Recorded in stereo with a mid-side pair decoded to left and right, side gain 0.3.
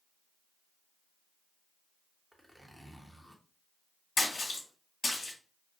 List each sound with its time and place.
2.3 s a zipper: 5° right, 0.9 m
4.2 s a splash: 55° left, 1.6 m